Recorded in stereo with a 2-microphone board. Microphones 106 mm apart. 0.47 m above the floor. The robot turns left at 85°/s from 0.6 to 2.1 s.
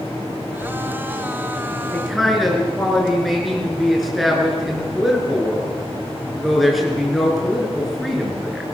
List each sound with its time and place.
1.9 s a man speaking: 15° left (ahead or behind), 7 m; by 8.6 s centre (ahead or behind), 7 m